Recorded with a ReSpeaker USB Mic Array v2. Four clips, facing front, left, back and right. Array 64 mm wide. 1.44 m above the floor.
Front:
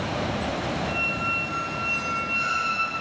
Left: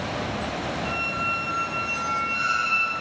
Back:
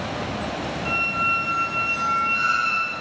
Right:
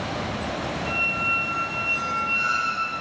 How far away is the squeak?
About 0.5 m.